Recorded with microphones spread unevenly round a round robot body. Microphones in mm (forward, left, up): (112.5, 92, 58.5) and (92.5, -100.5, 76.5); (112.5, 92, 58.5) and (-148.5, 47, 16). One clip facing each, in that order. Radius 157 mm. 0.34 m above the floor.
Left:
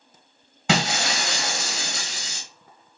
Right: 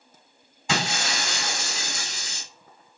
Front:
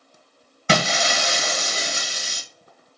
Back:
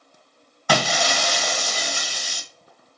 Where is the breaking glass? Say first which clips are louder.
Left 4 dB, even; 80° left, 1.0 m.